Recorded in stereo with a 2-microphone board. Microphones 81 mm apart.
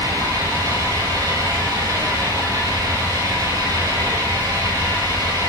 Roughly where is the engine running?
Right.